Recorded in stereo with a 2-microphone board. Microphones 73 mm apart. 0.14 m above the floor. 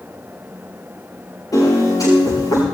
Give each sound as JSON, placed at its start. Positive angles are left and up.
{"t": 1.5, "sound": "a piano", "side_deg": 55, "distance_m": 9.0}